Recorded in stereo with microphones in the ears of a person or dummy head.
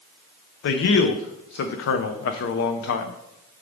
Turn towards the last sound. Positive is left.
turn(degrees=60)  # may be behind; listen again after turning